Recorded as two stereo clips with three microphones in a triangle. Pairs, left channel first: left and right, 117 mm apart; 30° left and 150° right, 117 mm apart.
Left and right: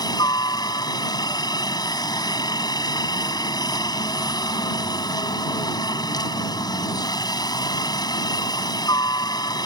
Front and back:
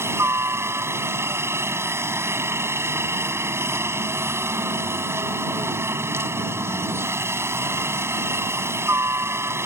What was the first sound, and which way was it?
A helicopter, 145° left.